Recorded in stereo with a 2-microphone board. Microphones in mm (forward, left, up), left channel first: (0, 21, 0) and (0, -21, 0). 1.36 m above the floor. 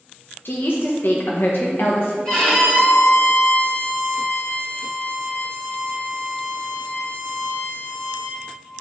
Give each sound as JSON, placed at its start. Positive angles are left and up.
{"t": 0.5, "sound": "a woman speaking", "side_deg": 60, "distance_m": 0.7}
{"t": 2.2, "sound": "a violin", "side_deg": 25, "distance_m": 2.5}